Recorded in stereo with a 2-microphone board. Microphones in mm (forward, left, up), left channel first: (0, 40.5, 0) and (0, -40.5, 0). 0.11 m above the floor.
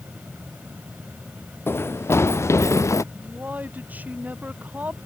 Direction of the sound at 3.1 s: 20° right (ahead or behind).